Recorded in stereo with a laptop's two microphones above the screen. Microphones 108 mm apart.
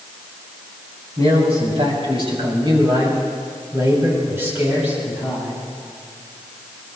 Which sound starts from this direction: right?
A man speaking, at 1.2 s.